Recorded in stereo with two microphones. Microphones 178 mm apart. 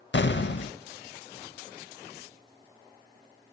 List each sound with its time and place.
0.1 s an explosion: 75° left (ahead or behind), 0.5 m